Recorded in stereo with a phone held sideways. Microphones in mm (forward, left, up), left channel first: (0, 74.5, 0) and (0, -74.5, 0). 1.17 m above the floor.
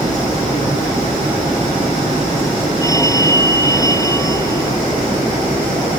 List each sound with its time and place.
2.8 s a phone ringing: 20° left (ahead or behind)